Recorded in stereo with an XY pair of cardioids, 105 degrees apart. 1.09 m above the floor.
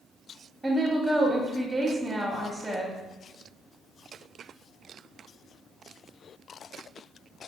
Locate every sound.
0.6 s a woman speaking: 10° right, 0.9 m